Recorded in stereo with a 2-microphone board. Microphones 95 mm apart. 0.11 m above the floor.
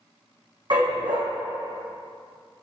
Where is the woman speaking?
I don't hear a woman speaking.